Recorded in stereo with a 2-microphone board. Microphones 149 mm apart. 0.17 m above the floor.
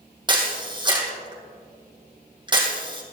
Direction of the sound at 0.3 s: 30° right (ahead or behind).